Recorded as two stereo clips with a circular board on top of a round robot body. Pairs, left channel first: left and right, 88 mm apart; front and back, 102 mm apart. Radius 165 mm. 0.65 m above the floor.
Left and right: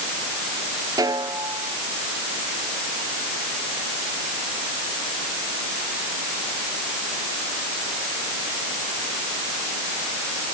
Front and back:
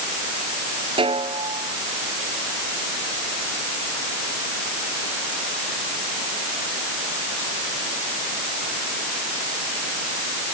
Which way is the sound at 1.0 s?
140° right.